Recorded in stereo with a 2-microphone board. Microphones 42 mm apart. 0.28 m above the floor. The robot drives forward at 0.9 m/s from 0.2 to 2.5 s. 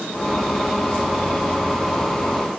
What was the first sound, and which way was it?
Only background noise.